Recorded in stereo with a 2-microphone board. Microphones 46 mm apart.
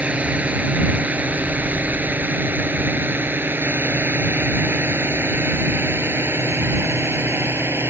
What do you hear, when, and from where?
0.0 s a drone: 30° right (ahead or behind); by 7.9 s 70° right (ahead or behind)